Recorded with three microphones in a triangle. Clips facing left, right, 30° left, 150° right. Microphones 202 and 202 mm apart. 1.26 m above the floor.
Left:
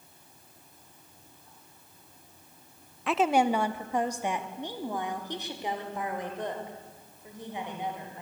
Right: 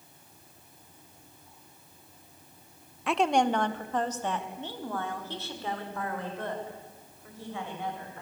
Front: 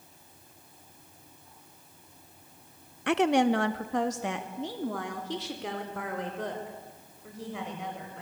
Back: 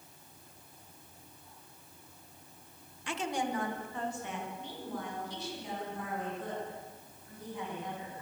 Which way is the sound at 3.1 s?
Straight ahead.